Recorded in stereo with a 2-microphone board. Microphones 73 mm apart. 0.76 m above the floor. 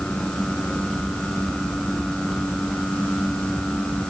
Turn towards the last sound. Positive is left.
No sound to turn to.